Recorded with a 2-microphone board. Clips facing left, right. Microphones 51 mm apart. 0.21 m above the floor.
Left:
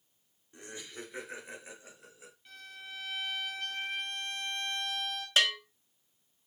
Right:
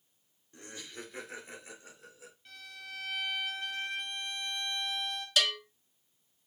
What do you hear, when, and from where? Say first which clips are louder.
0.5 s laughter: left 1 dB; 20° left (ahead or behind), 2.5 m
2.5 s a violin: even; centre (ahead or behind), 2 m
5.4 s a bell: left 2 dB; 30° left (ahead or behind), 0.7 m